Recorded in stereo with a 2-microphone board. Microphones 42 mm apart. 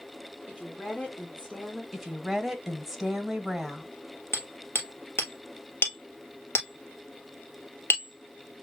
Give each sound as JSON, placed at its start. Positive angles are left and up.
{"t": 0.5, "sound": "a woman speaking", "side_deg": 20, "distance_m": 2.5}
{"t": 1.9, "sound": "a woman speaking", "side_deg": -5, "distance_m": 1.6}
{"t": 4.3, "sound": "hammering", "side_deg": 85, "distance_m": 1.4}